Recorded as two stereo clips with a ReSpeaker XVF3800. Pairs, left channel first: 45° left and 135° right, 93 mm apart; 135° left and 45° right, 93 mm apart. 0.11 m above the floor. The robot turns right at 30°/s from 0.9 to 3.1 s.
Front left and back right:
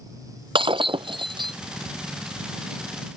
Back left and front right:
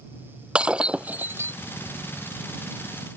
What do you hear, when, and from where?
0.6 s breaking glass: 125° right; by 1.6 s 105° right